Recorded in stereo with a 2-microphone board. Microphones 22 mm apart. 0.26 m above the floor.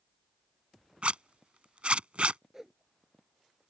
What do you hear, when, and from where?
1.0 s a zipper: 65° right (ahead or behind)
2.5 s a whoosh: 20° right (ahead or behind)